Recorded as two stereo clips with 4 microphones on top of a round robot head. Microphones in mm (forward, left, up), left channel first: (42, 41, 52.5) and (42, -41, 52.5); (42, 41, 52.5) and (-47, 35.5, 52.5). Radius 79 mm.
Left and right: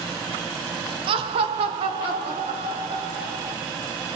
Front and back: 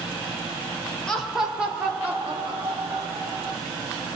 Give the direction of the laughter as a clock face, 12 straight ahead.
3 o'clock.